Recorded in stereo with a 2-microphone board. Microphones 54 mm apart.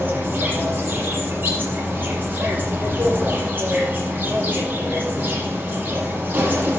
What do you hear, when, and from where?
0.0 s an insect: 35° right (ahead or behind), 5.5 m